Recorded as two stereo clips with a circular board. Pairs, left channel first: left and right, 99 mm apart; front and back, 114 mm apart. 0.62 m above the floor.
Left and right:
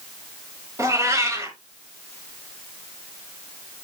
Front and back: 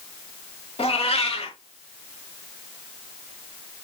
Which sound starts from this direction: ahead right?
A cat meowing, at 0.8 s.